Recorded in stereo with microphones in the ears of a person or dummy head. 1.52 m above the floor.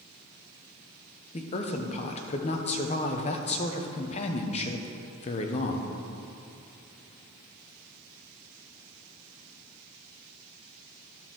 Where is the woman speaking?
40° left (ahead or behind), 1.0 m.